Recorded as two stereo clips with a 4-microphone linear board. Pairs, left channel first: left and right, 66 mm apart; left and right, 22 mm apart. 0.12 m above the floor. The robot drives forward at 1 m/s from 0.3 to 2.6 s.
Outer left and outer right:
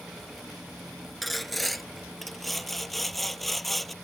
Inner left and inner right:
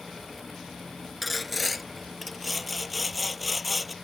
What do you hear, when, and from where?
1.2 s sawing: centre (ahead or behind)